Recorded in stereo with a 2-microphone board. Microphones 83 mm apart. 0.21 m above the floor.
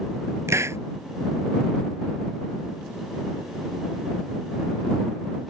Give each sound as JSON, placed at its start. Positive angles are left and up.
{"t": 0.5, "sound": "a hiss", "side_deg": -35}